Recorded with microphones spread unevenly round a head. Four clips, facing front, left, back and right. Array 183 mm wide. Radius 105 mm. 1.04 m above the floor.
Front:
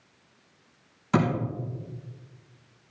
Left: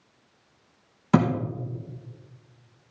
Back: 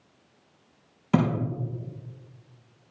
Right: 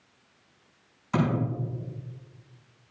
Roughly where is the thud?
Behind left.